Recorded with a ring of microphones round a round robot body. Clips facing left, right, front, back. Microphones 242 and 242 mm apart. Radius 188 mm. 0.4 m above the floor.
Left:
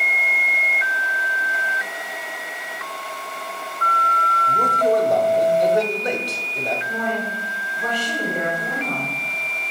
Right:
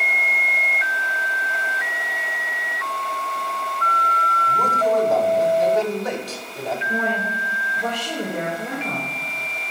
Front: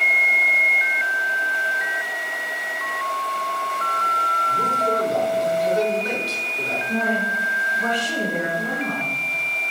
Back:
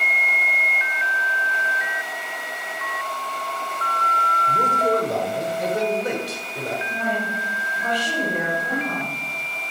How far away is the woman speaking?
About 2.5 m.